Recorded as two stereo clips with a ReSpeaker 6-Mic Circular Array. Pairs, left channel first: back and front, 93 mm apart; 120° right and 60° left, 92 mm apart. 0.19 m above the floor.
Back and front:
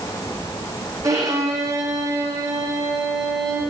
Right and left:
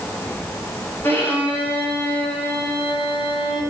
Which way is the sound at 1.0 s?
55° right.